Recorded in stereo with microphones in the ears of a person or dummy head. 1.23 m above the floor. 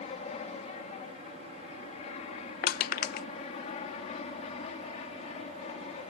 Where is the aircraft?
35° left (ahead or behind).